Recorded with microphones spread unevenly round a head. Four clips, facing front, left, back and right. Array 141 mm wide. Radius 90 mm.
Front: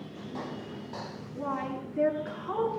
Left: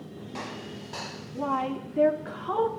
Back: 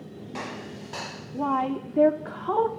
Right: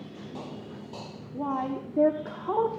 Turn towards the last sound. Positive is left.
turn(degrees=-145)